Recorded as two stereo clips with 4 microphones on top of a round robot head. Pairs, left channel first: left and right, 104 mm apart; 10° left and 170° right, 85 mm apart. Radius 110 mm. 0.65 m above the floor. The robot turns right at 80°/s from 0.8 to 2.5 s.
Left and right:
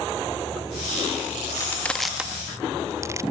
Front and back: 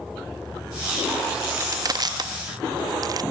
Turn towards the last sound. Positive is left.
turn(degrees=-145)